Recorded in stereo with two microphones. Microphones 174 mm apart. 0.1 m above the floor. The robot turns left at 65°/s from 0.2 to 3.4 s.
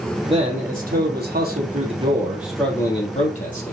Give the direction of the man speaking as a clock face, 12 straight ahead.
1 o'clock.